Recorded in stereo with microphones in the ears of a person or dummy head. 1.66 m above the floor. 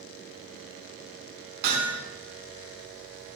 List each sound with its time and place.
1.6 s hammering: 55° right (ahead or behind), 4 m